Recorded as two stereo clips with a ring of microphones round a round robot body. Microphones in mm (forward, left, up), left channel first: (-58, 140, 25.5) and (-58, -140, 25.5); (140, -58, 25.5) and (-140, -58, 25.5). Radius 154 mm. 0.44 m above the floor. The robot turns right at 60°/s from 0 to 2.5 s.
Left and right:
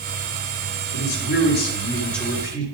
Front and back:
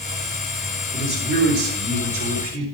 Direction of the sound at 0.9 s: 100° left.